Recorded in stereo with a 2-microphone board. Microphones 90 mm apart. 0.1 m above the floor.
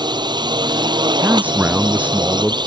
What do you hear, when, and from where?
0.0 s a drone: 60° right (ahead or behind)
1.2 s a man speaking: 15° right (ahead or behind)